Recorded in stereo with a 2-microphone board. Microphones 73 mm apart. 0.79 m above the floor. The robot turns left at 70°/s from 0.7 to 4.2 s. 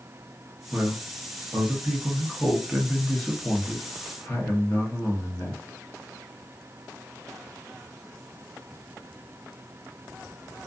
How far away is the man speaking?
About 0.8 m.